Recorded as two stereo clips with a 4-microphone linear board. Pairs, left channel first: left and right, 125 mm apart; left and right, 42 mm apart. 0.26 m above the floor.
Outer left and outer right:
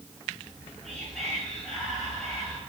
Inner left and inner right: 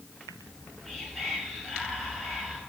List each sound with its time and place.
0.4 s whispering: 5° left (ahead or behind), 1.6 m